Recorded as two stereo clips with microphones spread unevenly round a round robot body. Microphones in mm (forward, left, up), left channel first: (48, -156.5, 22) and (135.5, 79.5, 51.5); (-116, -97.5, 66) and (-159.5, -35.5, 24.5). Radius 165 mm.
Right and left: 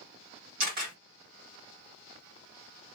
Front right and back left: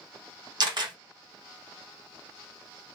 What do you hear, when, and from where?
0.6 s a camera shutter: 130° left, 1.3 m